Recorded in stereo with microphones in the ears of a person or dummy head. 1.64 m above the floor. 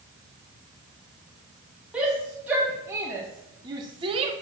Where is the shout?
10° right (ahead or behind), 2 m; by 4.3 s 40° right (ahead or behind), 1.1 m.